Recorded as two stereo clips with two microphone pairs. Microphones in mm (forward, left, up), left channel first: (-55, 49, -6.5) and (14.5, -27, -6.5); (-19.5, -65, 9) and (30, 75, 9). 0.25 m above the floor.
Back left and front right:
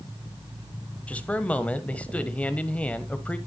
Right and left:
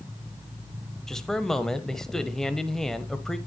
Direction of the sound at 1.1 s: 170° left.